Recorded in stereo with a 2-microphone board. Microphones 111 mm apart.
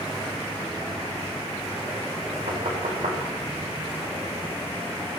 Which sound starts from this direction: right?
Knocking, at 2.5 s.